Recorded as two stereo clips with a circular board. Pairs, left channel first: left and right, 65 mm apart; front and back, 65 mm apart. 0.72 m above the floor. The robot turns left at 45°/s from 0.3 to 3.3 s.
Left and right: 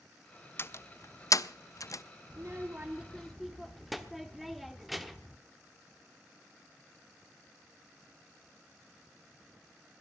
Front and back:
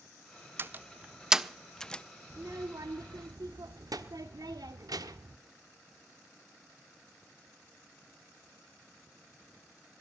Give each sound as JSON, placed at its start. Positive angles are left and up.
{"t": 0.6, "sound": "a door slam", "azimuth_deg": 135, "distance_m": 0.5}
{"t": 2.3, "sound": "a child speaking", "azimuth_deg": -135, "distance_m": 1.1}